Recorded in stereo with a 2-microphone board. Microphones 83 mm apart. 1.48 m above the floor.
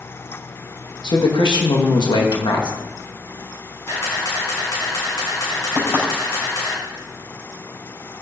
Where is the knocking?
30° left (ahead or behind), 5.5 m.